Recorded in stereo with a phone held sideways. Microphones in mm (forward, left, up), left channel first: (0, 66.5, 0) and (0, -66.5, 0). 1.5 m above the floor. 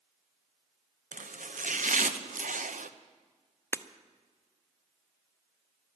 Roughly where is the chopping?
Right.